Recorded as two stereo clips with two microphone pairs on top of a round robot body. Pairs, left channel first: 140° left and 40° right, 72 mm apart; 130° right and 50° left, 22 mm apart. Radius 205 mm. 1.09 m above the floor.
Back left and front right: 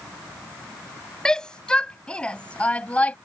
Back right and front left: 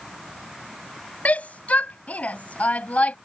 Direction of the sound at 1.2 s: 140° right.